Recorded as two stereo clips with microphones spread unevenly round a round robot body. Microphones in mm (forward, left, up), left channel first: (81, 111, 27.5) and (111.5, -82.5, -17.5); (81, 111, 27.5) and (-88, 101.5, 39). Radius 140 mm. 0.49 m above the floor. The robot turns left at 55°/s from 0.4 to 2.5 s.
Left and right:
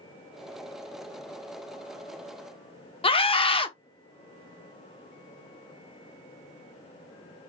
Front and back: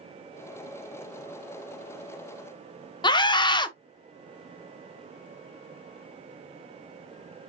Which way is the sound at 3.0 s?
35° left.